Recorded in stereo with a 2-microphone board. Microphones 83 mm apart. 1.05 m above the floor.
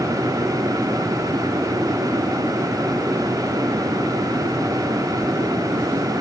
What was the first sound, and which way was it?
Only background noise.